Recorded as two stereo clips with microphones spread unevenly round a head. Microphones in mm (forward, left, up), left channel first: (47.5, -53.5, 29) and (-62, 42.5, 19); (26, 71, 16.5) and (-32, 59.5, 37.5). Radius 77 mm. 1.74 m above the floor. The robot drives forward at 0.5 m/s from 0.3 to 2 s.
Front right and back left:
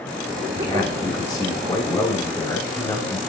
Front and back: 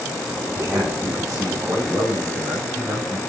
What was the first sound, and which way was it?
A man speaking, 100° right.